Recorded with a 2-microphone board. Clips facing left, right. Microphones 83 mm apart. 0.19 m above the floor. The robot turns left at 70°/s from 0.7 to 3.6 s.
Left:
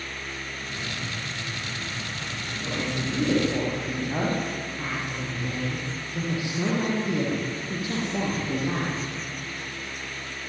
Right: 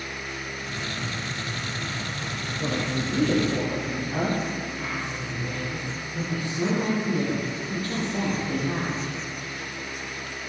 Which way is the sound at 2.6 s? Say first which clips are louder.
Right 2 dB; 125° right.